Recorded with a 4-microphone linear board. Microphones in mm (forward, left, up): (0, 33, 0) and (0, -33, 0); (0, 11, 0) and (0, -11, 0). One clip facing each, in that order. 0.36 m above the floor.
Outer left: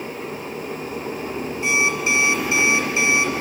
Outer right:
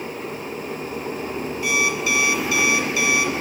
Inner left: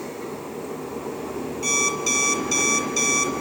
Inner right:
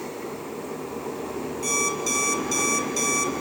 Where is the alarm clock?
25° left (ahead or behind), 4 m.